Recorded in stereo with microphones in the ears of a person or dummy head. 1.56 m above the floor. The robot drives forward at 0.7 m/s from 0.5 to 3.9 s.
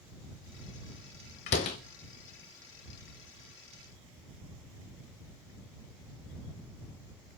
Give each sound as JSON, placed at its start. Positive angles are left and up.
{"t": 1.5, "sound": "a door slam", "side_deg": 20, "distance_m": 0.8}